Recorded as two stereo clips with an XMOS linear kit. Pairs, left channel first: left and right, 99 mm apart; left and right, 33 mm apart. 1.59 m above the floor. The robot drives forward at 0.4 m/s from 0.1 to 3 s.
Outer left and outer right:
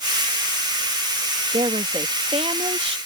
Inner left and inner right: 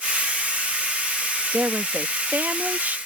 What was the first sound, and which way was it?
A woman speaking, 75° right (ahead or behind).